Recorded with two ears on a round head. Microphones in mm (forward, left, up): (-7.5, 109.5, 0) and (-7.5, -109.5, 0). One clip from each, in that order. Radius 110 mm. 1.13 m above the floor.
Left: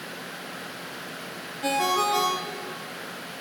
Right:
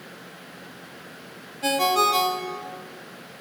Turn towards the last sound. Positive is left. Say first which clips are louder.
# right 3 dB
turn(degrees=-25)  # may be behind; listen again after turning